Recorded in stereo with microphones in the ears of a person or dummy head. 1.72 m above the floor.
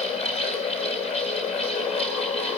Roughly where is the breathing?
I don't hear breathing.